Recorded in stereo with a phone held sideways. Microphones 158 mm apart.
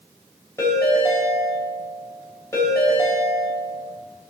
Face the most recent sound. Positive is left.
turn(degrees=20)  # may be behind; listen again after turning